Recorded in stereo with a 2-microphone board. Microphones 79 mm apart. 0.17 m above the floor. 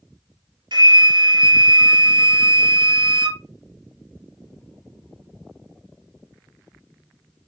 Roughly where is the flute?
Right.